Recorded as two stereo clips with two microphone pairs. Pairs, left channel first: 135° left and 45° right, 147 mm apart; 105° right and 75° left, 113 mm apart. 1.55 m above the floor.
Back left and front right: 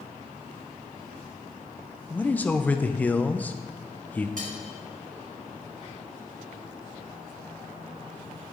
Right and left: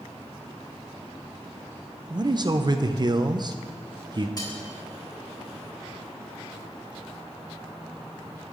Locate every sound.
2.1 s a man speaking: 60° left, 0.6 m
4.4 s cutlery clinking: 60° right, 2.0 m